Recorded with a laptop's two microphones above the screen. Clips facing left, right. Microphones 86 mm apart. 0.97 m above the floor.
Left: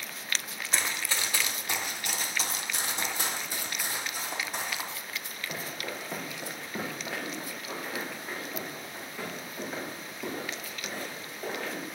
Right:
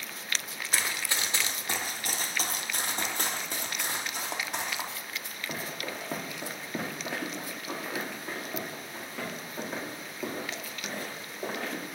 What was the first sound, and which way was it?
Running footsteps, 5° right (ahead or behind).